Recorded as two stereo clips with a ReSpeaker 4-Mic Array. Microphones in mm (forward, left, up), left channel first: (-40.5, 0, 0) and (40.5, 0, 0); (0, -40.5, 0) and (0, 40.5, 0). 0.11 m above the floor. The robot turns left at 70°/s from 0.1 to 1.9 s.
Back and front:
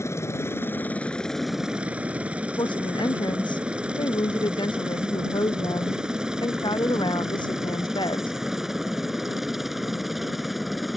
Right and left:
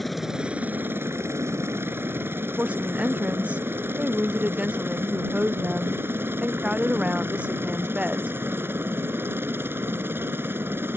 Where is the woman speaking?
165° left.